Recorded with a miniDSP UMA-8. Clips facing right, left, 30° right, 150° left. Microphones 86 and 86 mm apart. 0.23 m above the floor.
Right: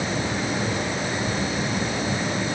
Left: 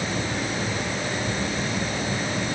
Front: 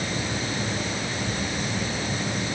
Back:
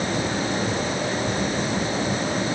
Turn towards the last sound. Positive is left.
No sound to turn to.